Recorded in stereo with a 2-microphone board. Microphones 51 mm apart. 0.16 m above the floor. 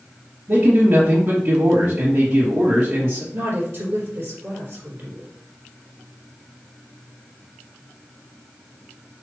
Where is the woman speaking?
45° right (ahead or behind), 3.5 m.